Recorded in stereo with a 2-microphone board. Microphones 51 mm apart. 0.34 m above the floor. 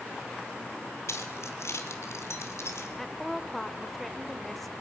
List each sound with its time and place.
1.1 s keys jangling: 70° left (ahead or behind), 2.5 m; by 2.9 s 65° left (ahead or behind), 2.5 m
3.0 s a woman speaking: 5° left (ahead or behind), 0.9 m